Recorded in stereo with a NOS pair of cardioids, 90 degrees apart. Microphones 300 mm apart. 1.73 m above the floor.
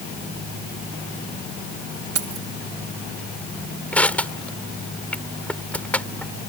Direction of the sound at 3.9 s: 5° left.